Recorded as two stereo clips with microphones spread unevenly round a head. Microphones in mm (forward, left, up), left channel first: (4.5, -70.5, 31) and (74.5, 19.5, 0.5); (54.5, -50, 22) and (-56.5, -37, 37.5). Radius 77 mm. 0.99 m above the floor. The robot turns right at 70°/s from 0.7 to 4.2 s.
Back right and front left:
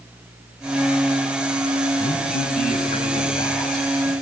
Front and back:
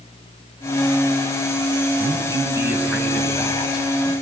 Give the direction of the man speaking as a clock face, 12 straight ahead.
6 o'clock.